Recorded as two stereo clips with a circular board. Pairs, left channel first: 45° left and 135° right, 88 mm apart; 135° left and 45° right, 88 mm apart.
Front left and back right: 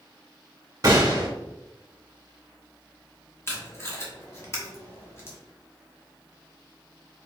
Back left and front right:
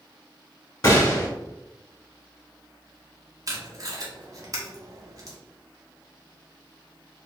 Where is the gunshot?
Straight behind, 1.4 m.